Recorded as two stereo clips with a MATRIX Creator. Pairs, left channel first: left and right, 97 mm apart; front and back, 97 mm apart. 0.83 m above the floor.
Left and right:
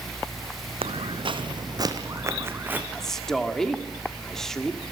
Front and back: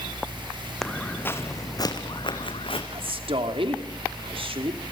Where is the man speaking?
175° left, 2.5 m.